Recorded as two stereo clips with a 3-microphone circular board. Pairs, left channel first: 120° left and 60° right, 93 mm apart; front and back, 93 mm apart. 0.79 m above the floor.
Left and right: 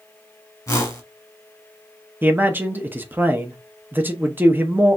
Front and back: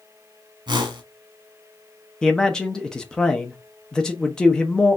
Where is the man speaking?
70° right, 0.8 m.